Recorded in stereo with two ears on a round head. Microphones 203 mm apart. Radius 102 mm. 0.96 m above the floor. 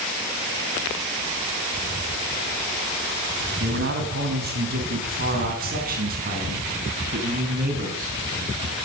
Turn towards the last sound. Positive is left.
turn(degrees=-35)  # may be behind; listen again after turning